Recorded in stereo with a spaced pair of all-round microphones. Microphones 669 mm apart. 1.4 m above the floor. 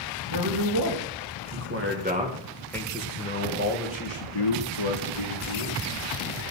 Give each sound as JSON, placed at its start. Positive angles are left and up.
{"t": 0.3, "sound": "a man speaking", "side_deg": -40, "distance_m": 2.5}